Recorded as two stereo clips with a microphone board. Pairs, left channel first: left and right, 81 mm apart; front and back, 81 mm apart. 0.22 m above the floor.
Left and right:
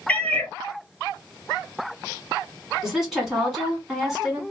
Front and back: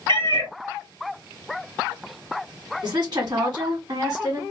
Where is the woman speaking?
175° right, 1.9 m.